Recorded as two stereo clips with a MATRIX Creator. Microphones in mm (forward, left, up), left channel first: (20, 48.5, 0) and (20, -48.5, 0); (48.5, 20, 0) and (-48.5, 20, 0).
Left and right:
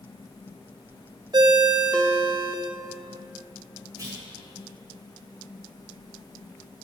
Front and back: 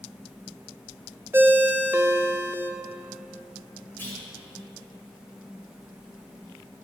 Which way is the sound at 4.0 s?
60° right.